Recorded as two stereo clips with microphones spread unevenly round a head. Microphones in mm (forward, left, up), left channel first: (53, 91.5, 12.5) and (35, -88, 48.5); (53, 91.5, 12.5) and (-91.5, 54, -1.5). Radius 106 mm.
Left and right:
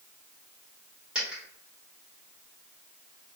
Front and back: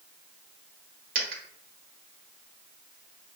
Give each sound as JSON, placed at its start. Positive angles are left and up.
{"t": 1.1, "sound": "a dropped coin", "azimuth_deg": -175, "distance_m": 1.2}